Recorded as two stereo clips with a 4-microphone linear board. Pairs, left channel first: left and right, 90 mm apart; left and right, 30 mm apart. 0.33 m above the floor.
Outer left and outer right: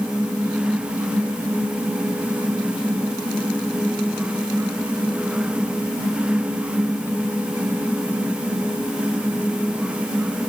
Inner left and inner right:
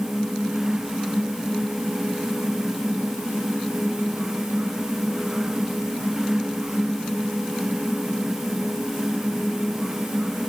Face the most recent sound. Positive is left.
No sound to turn to.